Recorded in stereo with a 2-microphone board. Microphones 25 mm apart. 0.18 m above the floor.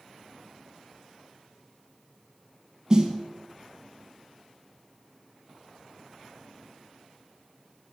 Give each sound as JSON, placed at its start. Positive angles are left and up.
{"t": 2.9, "sound": "a snare drum", "side_deg": -30, "distance_m": 1.1}